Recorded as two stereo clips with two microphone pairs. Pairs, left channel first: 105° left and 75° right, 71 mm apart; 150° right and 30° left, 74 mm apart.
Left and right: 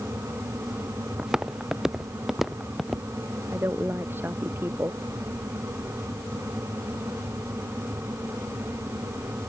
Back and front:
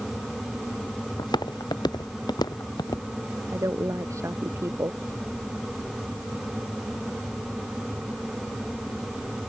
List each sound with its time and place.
1.2 s footsteps: 155° right; by 3.1 s 165° right
3.5 s a woman speaking: 15° right